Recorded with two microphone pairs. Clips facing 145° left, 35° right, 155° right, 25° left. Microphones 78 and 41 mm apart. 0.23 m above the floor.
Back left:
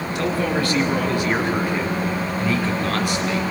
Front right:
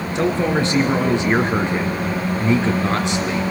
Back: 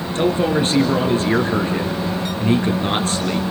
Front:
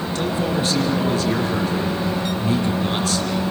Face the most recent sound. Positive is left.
turn(degrees=-100)